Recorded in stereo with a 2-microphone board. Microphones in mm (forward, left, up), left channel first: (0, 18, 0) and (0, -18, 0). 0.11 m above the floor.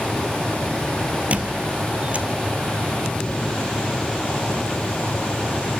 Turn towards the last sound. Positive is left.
turn(degrees=-40)  # may be behind; listen again after turning